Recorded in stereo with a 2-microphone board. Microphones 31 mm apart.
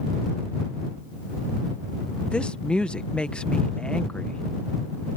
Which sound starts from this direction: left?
A woman speaking, at 2.3 s.